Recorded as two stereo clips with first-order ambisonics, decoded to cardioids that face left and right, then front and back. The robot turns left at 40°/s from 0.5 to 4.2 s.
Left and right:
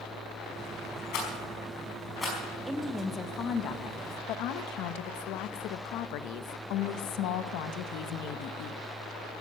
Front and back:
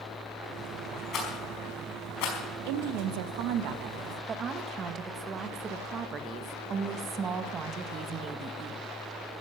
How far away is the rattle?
About 5 m.